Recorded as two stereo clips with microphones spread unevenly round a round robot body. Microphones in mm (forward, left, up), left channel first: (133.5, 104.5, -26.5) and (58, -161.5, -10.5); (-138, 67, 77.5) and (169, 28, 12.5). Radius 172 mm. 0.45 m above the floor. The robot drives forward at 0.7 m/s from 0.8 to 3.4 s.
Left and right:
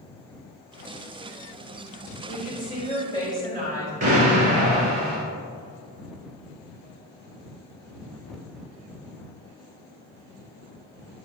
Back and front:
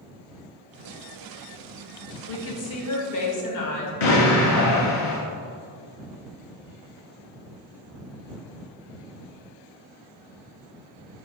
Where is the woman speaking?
125° left, 1.3 m; by 3.9 s 150° left, 1.7 m.